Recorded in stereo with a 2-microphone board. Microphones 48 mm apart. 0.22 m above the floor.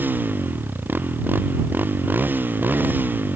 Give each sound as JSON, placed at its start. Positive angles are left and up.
{"t": 0.0, "sound": "a motorcycle", "side_deg": -45}